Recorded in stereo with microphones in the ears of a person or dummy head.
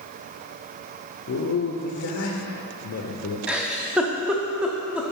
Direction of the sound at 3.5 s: 5° right (ahead or behind).